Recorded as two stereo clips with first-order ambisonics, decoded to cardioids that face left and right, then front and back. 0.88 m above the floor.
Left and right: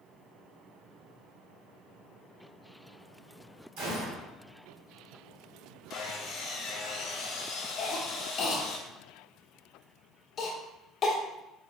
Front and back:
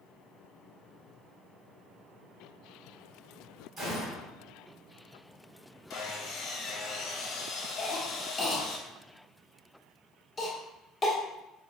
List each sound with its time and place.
3.8 s a gunshot: 105° right, 1.8 m
5.9 s sawing: 35° left, 1.0 m
7.8 s a cough: 55° left, 0.9 m